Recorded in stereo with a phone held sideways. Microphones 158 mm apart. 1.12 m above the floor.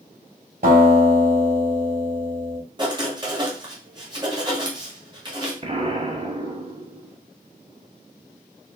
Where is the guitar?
65° right (ahead or behind), 3 m.